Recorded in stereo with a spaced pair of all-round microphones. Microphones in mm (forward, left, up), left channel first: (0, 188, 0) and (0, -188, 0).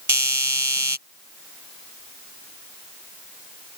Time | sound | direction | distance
0.1 | a doorbell | 50° right (ahead or behind) | ?